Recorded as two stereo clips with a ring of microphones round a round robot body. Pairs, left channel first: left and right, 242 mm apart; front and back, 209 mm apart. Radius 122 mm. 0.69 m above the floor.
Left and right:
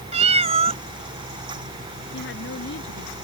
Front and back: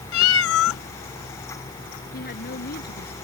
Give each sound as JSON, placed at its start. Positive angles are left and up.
{"t": 0.1, "sound": "a cat meowing", "azimuth_deg": -25}
{"t": 2.1, "sound": "a woman speaking", "azimuth_deg": 45}